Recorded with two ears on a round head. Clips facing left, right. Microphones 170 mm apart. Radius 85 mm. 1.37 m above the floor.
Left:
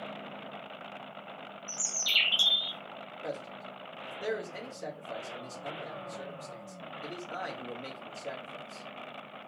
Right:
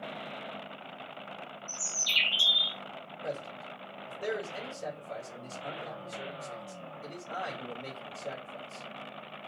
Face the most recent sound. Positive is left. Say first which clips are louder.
# right 1 dB
turn(degrees=15)  # may be behind; listen again after turning